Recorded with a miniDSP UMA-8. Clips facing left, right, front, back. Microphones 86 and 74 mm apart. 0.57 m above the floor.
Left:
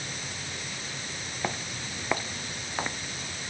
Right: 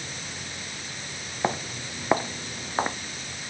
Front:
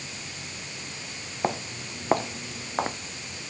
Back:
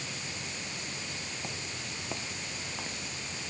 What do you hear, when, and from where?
1.4 s footsteps: 30° right; by 3.0 s 35° right